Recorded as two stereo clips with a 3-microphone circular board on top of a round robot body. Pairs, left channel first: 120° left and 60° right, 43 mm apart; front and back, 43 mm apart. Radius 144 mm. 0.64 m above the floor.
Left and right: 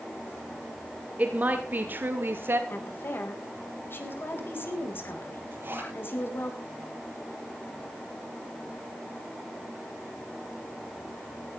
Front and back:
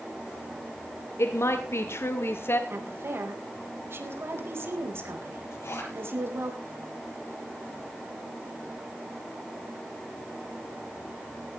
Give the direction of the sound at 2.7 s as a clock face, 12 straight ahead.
7 o'clock.